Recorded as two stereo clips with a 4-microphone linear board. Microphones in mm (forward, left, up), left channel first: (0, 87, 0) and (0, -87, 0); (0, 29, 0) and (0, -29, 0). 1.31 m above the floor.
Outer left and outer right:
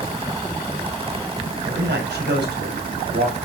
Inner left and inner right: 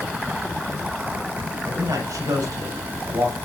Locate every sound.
1.6 s a man speaking: 75° right (ahead or behind), 6 m; by 3.4 s 85° right, 7 m